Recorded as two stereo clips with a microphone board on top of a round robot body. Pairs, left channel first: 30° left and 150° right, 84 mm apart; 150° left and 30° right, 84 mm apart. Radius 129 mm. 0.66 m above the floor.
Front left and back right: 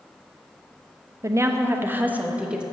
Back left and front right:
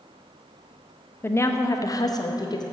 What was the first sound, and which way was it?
A woman speaking, 165° right.